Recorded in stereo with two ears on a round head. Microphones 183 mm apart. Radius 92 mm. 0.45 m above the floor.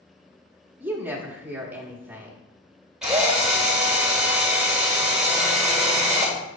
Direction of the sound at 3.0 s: 5° right (ahead or behind).